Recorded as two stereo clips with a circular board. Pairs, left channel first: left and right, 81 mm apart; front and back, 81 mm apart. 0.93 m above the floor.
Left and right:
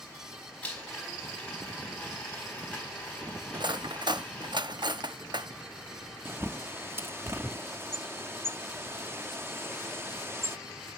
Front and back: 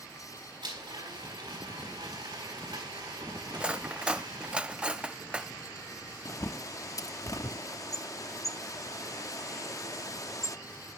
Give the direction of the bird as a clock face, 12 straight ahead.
1 o'clock.